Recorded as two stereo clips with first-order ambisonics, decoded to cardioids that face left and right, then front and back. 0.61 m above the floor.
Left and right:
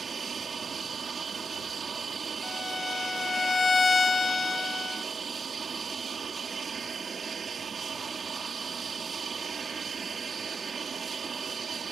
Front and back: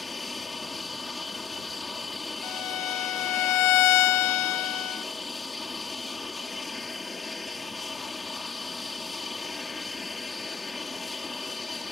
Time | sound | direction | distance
0.0 | an aircraft | 60° right | ?
2.4 | a violin | 15° left | ?